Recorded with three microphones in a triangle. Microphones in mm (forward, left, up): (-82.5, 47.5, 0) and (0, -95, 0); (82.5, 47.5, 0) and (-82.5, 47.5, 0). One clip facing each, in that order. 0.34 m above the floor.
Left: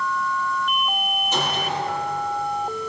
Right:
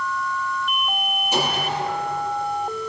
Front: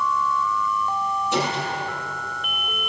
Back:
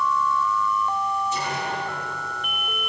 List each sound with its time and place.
1.3 s a gunshot: 20° left, 7 m